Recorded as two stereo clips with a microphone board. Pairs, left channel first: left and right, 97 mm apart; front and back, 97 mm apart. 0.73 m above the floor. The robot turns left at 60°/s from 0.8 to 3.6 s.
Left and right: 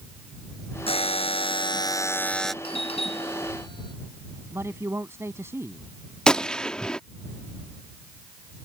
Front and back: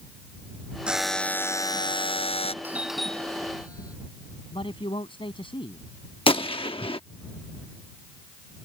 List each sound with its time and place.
0.9 s a buzzer: 100° left; by 2.5 s straight ahead
2.6 s a doorbell: 110° left; by 4.0 s 55° left
4.5 s a man speaking: 25° right
6.3 s a gunshot: 10° left